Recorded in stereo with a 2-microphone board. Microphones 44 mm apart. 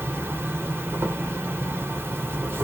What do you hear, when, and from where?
0.0 s an insect: 70° right (ahead or behind), 1.0 m